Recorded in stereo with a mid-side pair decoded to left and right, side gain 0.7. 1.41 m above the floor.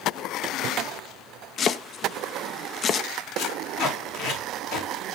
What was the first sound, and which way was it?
Chopping, 40° left.